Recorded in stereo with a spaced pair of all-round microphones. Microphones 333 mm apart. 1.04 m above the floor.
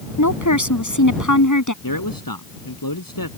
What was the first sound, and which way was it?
A woman speaking, 55° left (ahead or behind).